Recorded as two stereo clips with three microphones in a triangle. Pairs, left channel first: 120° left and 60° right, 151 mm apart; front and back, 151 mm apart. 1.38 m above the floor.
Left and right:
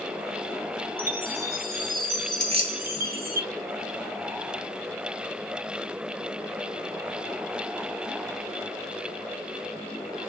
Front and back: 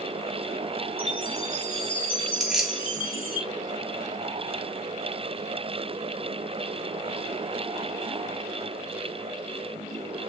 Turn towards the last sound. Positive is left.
turn(degrees=-95)